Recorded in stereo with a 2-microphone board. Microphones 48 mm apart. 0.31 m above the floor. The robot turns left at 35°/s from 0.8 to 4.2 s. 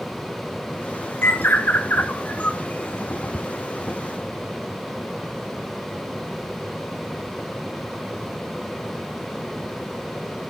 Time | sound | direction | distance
1.2 | a bird | 85° left | 1.4 m
3.3 | ticking | 10° left (ahead or behind) | 0.7 m